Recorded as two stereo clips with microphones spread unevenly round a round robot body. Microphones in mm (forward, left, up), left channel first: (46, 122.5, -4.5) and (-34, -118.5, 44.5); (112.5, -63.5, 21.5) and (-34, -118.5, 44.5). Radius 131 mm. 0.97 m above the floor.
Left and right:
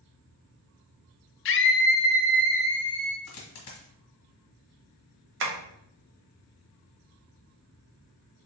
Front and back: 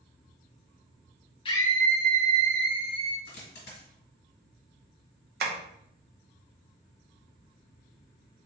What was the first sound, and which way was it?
A scream, 70° left.